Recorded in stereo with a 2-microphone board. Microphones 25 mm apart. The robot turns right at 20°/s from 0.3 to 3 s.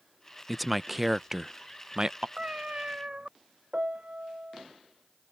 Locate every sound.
0.5 s a man speaking: 5° left (ahead or behind); by 2.3 s 30° right (ahead or behind)
2.4 s a cat meowing: 45° right (ahead or behind); by 3.3 s 40° right (ahead or behind)
3.7 s a piano: 60° right (ahead or behind)